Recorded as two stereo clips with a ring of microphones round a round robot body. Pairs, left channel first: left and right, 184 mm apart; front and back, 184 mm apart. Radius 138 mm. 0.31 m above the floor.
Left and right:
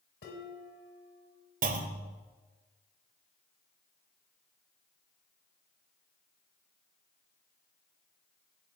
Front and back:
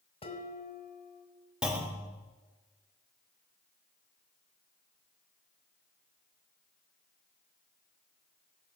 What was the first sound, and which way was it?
Dishes clattering, 60° left.